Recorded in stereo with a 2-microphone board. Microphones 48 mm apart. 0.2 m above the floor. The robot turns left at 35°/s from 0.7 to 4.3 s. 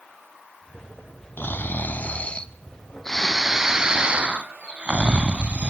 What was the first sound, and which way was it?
Snoring, 70° left.